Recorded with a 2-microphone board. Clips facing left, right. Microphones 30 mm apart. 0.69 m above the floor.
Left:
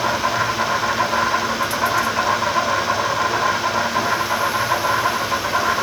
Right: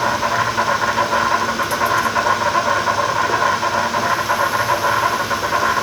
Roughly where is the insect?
Right.